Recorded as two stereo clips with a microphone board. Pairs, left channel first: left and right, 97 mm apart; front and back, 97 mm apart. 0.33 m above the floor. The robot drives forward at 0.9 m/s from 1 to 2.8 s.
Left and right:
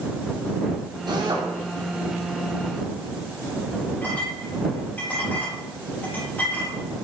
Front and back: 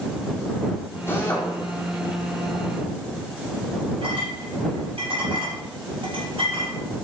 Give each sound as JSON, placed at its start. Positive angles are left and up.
{"t": 1.1, "sound": "a drill", "azimuth_deg": -60, "distance_m": 3.5}
{"t": 4.0, "sound": "a clink", "azimuth_deg": 165, "distance_m": 5.0}